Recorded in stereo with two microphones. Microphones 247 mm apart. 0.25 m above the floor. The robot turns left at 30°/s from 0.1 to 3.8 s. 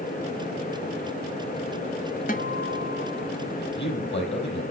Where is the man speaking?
40° left (ahead or behind), 7 m; by 4.6 s 50° left (ahead or behind), 7 m.